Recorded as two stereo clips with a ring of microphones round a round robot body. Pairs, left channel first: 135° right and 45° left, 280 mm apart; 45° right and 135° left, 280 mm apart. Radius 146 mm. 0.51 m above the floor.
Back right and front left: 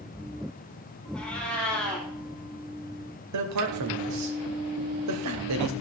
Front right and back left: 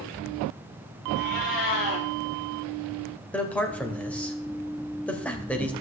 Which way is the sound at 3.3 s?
40° left.